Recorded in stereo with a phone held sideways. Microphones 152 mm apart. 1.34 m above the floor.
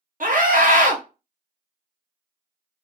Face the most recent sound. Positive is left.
turn(degrees=-60)  # may be behind; listen again after turning